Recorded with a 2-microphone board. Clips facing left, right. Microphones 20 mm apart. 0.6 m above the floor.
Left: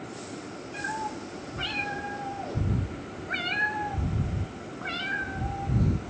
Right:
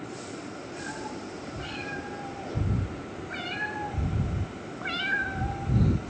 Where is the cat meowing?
60° left (ahead or behind), 2.5 m; by 6.1 s 40° right (ahead or behind), 1.3 m.